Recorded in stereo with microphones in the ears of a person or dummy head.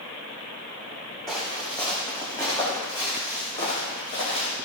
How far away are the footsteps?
About 5.5 m.